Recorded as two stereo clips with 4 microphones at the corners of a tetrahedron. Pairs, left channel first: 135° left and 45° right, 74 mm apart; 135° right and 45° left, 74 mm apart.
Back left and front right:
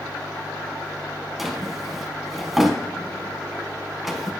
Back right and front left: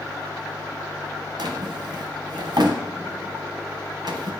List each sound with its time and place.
1.4 s a drawer: 40° left, 0.9 m